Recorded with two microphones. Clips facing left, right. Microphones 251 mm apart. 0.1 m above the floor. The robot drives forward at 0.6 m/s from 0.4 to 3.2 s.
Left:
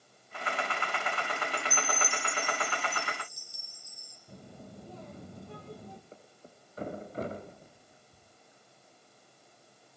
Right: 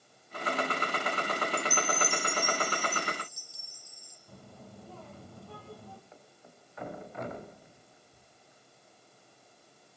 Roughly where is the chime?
Centre.